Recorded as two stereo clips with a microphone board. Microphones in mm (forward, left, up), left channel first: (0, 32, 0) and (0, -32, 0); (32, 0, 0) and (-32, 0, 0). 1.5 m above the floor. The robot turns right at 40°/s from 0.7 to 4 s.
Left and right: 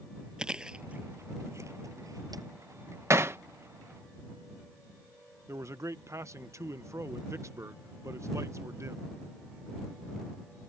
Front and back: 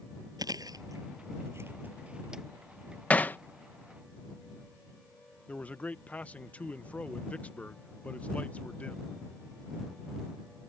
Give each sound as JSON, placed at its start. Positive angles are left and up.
{"t": 0.4, "sound": "chewing", "azimuth_deg": -165}
{"t": 3.1, "sound": "hammering", "azimuth_deg": -60}
{"t": 5.5, "sound": "a man speaking", "azimuth_deg": -65}